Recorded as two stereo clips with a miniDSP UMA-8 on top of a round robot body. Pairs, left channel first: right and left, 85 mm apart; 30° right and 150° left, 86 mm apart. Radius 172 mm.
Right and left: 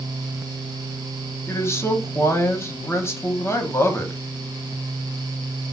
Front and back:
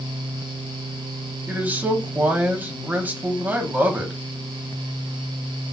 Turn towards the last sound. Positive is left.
turn(degrees=-145)